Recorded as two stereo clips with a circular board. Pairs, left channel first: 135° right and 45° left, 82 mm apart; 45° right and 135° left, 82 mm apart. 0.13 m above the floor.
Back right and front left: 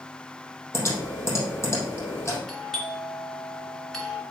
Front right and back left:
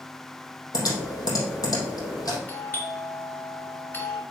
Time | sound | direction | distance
0.7 | typing on a keyboard | 85° right | 3.5 m
2.5 | a doorbell | 60° right | 2.0 m